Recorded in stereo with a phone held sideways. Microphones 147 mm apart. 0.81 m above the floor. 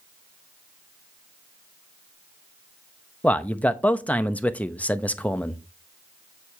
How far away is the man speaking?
About 0.8 m.